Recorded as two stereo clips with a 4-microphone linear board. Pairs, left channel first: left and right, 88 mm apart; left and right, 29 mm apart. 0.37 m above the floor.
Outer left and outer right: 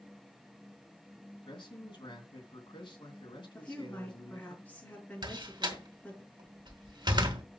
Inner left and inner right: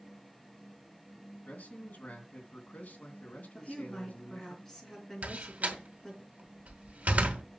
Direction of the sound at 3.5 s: 20° left (ahead or behind).